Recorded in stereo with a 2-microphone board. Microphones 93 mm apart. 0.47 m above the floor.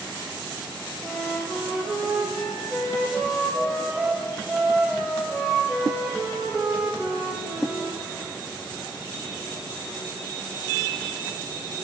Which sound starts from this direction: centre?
A flute, at 1.0 s.